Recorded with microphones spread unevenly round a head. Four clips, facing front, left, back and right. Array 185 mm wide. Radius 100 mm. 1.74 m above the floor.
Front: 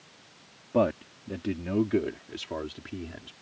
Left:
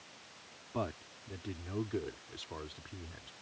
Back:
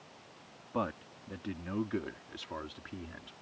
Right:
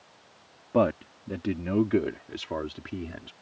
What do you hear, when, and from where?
0.7 s a man speaking: 70° right; by 3.3 s 80° right